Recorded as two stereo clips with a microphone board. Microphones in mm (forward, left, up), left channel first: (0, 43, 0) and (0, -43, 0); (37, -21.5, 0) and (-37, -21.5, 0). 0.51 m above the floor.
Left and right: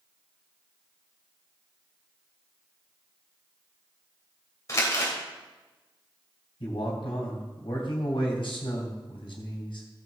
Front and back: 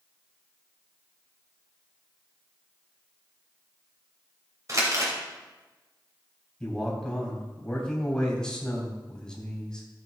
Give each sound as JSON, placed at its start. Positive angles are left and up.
{"t": 4.7, "sound": "crumpling", "azimuth_deg": 140, "distance_m": 2.5}
{"t": 6.6, "sound": "a man speaking", "azimuth_deg": 80, "distance_m": 3.0}